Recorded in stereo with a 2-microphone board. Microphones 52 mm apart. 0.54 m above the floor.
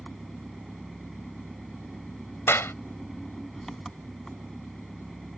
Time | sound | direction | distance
0.0 | an engine running | 5° left (ahead or behind) | ?
2.5 | a clap | 55° left (ahead or behind) | ?